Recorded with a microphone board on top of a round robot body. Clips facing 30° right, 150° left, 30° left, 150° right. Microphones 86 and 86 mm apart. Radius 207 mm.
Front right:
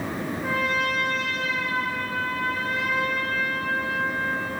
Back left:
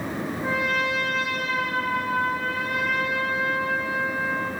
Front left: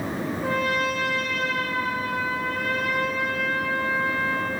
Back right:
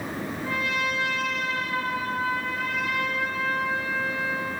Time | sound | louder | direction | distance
0.4 | a trumpet | even, front left 4 dB | 75° left | 0.5 m